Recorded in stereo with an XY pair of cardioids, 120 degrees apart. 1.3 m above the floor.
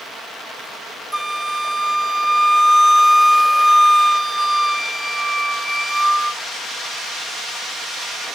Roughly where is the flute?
Ahead.